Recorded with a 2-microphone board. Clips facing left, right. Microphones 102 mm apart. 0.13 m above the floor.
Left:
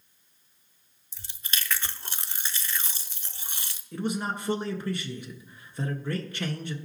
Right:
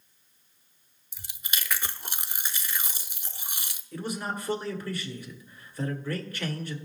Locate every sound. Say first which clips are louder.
1.1 s chewing: left 1 dB; 15° right (ahead or behind), 0.7 m
3.9 s a man speaking: left 3 dB; 25° left (ahead or behind), 1.6 m